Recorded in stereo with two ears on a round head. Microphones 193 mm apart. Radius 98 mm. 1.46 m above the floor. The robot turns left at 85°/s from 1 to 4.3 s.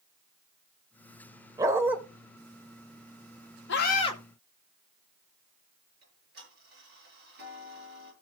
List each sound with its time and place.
1.6 s a dog barking: 15° right (ahead or behind), 1.2 m; by 2.0 s 5° right (ahead or behind), 1.2 m
3.7 s a scream: 55° left, 2 m; by 4.2 s 15° left, 2 m
6.0 s ticking: 45° right (ahead or behind), 6.5 m